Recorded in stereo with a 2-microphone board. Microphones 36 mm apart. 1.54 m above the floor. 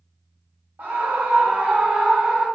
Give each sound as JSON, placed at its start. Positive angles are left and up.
{"t": 0.8, "sound": "a scream", "side_deg": -75, "distance_m": 1.5}